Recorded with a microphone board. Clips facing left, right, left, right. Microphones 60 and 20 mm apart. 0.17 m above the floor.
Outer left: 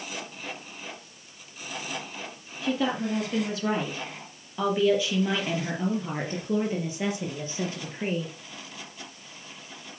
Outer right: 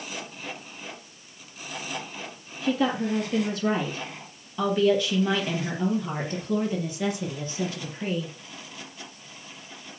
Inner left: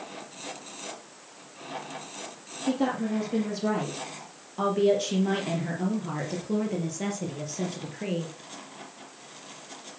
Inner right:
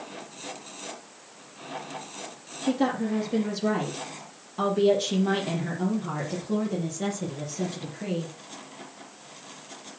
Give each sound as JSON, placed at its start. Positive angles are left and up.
{"t": 2.6, "sound": "a woman speaking", "side_deg": 0, "distance_m": 5.0}